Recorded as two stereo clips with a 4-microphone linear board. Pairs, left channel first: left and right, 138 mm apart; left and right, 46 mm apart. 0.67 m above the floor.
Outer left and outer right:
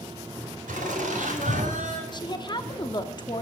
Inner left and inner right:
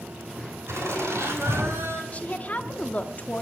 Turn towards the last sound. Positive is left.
turn(degrees=35)  # may be behind; listen again after turning